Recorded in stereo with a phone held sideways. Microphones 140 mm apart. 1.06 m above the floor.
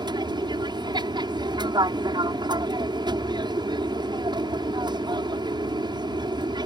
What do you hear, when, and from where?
0.0 s an aircraft: 30° right (ahead or behind)